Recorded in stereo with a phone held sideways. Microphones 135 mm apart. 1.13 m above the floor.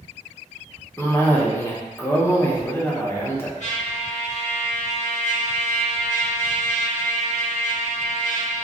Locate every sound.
1.0 s a cough: 15° left (ahead or behind), 0.6 m
3.6 s a trumpet: 65° left (ahead or behind), 1.2 m